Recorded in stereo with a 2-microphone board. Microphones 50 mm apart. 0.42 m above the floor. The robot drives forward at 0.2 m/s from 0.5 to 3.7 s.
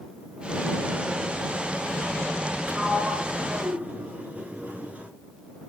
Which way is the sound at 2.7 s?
35° right (ahead or behind).